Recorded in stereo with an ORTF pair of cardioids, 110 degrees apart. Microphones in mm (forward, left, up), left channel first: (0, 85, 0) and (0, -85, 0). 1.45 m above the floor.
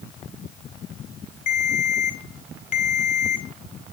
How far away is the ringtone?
About 4 m.